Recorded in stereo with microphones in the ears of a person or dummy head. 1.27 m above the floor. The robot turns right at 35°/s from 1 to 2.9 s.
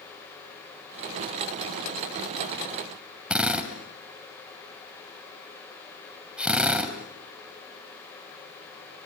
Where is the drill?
10° right (ahead or behind), 2.5 m.